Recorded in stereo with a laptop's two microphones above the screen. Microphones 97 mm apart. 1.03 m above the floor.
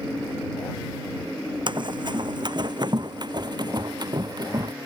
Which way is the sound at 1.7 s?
50° right (ahead or behind).